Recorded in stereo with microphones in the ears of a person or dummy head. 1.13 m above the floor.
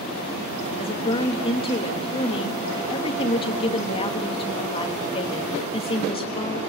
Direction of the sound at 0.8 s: 30° left (ahead or behind).